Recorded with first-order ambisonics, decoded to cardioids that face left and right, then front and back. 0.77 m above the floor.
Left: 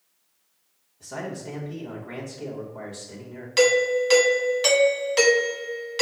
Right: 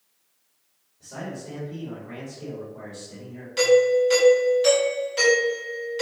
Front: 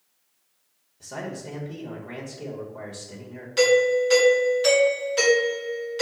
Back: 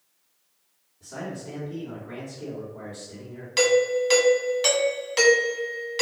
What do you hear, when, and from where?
1.0 s a man speaking: 25° left, 1.3 m
3.6 s a doorbell: 125° left, 1.2 m